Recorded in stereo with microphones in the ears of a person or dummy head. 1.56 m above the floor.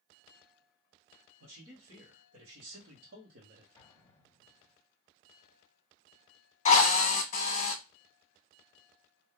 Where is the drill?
40° left (ahead or behind), 0.7 m.